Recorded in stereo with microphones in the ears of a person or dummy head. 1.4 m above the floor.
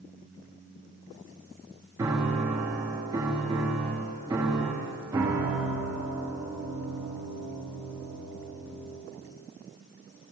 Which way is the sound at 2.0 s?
10° right (ahead or behind).